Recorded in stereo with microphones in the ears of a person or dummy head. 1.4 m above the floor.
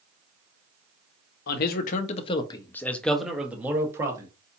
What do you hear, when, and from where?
1.5 s a man speaking: 65° left (ahead or behind), 0.8 m; by 4.3 s 20° right (ahead or behind), 1.3 m